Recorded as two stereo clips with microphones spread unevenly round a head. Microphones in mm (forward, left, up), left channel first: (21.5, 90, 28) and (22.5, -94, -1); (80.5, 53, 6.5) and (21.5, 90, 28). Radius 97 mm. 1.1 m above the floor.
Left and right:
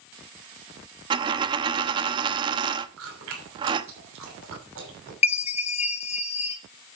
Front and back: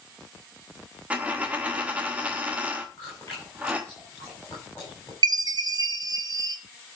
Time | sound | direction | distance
1.1 | a dropped coin | 160° right | 0.6 m
3.0 | chewing | 105° right | 6.5 m
5.2 | a chime | 145° left | 0.8 m